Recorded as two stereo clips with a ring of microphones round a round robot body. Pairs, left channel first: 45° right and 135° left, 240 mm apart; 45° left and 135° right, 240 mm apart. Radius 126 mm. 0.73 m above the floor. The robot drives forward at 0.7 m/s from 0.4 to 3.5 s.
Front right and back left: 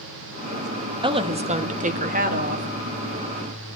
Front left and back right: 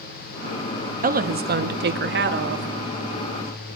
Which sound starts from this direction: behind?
A woman speaking, at 1.0 s.